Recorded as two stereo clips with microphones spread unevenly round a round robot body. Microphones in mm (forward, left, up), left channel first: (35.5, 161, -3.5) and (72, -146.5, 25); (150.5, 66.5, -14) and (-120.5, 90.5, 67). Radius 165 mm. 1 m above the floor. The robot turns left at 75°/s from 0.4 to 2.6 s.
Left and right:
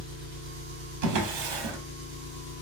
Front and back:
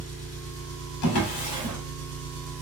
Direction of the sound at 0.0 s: 90° right.